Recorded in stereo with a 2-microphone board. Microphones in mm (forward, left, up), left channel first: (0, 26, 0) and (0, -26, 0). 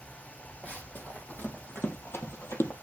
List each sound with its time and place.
0.6 s running footsteps: 35° left (ahead or behind), 2.5 m; by 2.7 s 65° left (ahead or behind), 1.9 m